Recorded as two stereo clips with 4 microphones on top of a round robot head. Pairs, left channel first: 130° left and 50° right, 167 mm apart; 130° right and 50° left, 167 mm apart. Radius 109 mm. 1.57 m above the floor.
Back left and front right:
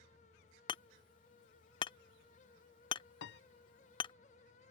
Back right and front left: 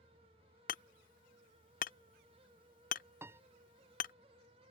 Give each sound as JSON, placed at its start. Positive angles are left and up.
{"t": 0.7, "sound": "hammering", "azimuth_deg": -170}
{"t": 3.2, "sound": "a piano", "azimuth_deg": 130}